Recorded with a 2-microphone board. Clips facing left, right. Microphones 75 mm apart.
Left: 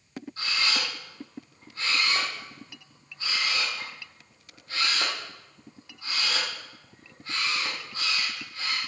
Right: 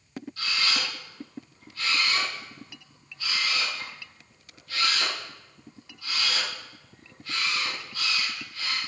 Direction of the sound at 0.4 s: 30° left (ahead or behind).